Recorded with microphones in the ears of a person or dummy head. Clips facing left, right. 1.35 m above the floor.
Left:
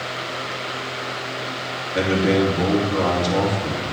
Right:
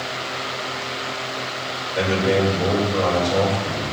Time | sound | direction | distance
1.9 | a man speaking | 60° left (ahead or behind) | 3 m